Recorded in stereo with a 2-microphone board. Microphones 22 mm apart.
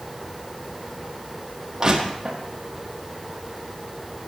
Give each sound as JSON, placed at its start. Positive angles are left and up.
{"t": 1.8, "sound": "crushing", "side_deg": -25, "distance_m": 3.5}